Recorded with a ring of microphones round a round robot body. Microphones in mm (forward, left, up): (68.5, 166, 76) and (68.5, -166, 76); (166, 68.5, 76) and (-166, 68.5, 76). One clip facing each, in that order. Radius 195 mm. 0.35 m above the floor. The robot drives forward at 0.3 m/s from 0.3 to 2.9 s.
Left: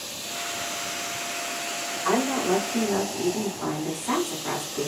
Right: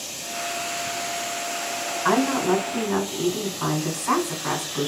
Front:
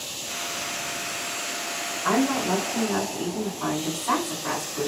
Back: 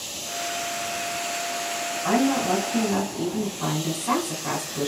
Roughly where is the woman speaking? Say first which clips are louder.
Right 3 dB, back 1 dB; behind right.